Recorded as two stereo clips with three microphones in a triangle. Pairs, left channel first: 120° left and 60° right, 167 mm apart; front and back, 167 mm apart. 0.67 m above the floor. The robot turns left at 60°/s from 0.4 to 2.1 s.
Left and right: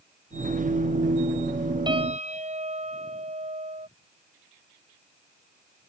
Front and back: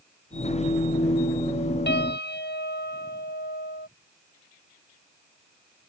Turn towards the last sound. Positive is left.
turn(degrees=-10)